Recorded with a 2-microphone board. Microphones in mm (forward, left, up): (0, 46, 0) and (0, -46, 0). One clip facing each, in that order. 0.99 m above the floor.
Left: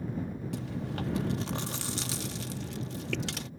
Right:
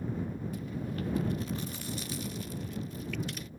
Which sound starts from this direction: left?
Chewing, at 0.5 s.